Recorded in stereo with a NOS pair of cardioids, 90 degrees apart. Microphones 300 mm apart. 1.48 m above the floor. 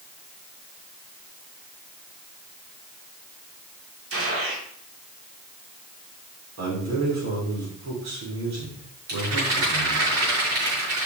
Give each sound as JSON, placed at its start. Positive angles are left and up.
{"t": 4.1, "sound": "a gunshot", "azimuth_deg": -50, "distance_m": 2.5}
{"t": 6.6, "sound": "a man speaking", "azimuth_deg": -65, "distance_m": 5.5}
{"t": 9.1, "sound": "a rattle", "azimuth_deg": -55, "distance_m": 6.0}